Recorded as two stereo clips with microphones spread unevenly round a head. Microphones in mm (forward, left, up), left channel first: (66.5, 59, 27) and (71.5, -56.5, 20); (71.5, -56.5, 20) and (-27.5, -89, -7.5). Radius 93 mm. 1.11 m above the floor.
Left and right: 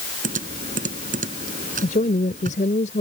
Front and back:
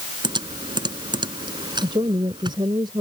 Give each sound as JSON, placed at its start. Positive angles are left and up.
{"t": 0.2, "sound": "typing on a keyboard", "azimuth_deg": -115}
{"t": 1.8, "sound": "a woman speaking", "azimuth_deg": 130}